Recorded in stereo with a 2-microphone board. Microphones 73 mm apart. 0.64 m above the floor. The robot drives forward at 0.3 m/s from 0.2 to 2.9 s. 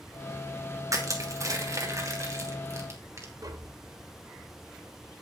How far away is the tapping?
About 1.5 m.